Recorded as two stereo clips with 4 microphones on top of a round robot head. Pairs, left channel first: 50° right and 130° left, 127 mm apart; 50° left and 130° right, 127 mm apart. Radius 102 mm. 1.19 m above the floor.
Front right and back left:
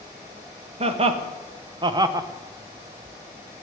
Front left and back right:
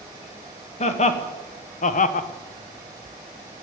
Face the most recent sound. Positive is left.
turn(degrees=60)